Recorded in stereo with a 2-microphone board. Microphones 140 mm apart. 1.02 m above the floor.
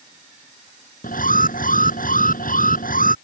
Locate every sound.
1.0 s an alarm: 85° left